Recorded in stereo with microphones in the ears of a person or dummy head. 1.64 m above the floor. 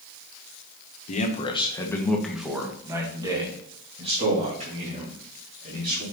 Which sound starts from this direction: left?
A man speaking, at 1.1 s.